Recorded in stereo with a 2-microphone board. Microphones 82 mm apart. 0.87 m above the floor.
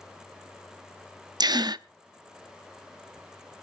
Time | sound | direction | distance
1.4 | a gasp | 60° right (ahead or behind) | 0.5 m